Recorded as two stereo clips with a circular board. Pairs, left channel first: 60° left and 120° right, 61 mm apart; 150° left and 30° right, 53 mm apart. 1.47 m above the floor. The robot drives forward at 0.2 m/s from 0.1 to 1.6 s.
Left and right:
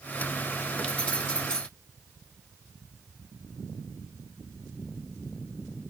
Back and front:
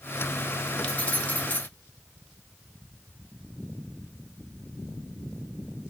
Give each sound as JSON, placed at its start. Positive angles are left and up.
{"t": 0.8, "sound": "keys jangling", "azimuth_deg": 105, "distance_m": 0.8}